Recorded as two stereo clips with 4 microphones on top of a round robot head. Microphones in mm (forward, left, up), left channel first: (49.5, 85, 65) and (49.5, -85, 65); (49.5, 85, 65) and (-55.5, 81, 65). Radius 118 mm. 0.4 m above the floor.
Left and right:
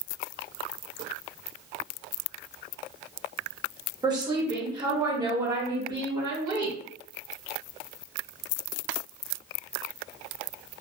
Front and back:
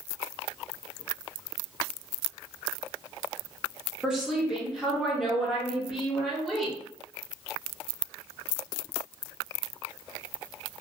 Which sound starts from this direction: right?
A woman speaking, at 4.0 s.